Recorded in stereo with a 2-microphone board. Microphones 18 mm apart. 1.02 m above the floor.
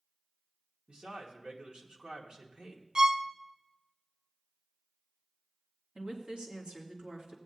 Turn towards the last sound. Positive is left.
turn(degrees=-75)  # may be behind; listen again after turning